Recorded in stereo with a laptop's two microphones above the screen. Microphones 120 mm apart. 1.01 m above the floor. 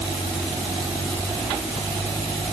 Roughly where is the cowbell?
No cowbell in this recording.